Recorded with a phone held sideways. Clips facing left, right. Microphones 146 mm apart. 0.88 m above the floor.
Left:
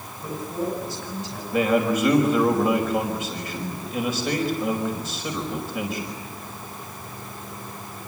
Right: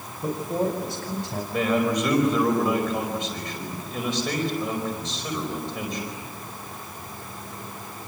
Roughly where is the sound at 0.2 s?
Right.